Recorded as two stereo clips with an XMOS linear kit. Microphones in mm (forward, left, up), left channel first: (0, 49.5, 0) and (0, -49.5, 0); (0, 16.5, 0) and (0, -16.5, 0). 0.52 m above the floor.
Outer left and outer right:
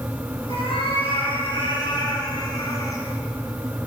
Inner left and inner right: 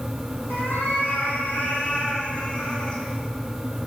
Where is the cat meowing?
75° left (ahead or behind), 3 m; by 3.0 s 35° left (ahead or behind), 2.5 m.